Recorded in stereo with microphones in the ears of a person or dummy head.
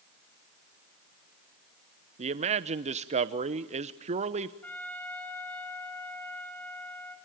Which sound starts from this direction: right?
A man speaking, at 2.2 s.